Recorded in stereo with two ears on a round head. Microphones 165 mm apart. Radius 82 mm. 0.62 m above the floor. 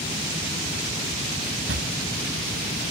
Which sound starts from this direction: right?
A drawer, at 1.7 s.